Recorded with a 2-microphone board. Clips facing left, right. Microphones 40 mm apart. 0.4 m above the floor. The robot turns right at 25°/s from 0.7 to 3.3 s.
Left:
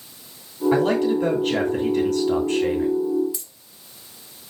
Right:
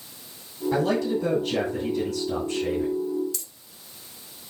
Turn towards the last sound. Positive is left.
turn(degrees=15)  # may be behind; listen again after turning